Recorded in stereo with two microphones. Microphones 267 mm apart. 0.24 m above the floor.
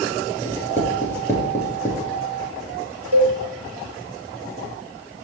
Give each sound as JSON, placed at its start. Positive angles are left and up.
{"t": 0.5, "sound": "writing", "side_deg": 10, "distance_m": 2.0}
{"t": 3.1, "sound": "a cowbell", "side_deg": -70, "distance_m": 1.5}